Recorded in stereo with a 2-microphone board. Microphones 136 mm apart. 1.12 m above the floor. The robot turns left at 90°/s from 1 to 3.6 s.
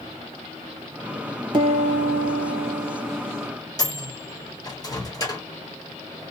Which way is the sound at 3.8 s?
30° left (ahead or behind).